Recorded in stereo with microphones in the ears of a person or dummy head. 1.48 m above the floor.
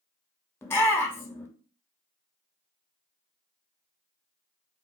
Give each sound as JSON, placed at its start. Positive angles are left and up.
{"t": 0.6, "sound": "a shout", "side_deg": 15, "distance_m": 0.8}